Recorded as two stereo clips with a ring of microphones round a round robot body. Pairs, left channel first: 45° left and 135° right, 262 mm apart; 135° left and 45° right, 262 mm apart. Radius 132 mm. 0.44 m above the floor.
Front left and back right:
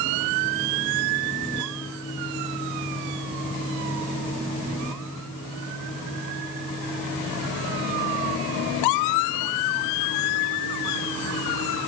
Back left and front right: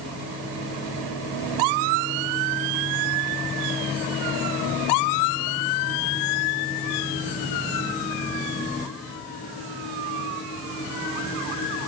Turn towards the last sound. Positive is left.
No sound to turn to.